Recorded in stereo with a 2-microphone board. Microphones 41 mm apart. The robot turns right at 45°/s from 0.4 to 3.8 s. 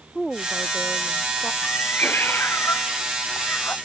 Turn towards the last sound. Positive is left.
turn(degrees=130)